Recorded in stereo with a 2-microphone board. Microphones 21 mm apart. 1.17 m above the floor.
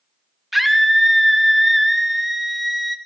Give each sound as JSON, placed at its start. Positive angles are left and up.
{"t": 0.5, "sound": "a scream", "side_deg": -10, "distance_m": 0.7}